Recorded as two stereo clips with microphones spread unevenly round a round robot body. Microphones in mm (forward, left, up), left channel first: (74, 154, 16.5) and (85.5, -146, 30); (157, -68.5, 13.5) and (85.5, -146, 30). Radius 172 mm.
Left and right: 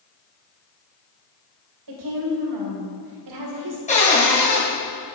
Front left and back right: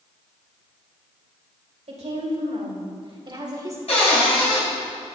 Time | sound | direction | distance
1.9 | a woman speaking | 120° right | 2.5 m
3.9 | a cupboard door | 25° left | 3.5 m